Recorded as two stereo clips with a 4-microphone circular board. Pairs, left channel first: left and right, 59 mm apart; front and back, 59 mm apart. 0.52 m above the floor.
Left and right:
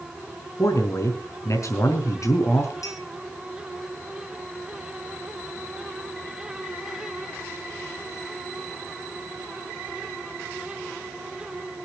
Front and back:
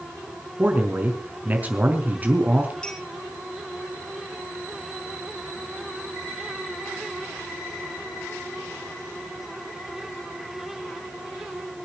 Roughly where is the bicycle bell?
I don't hear a bicycle bell.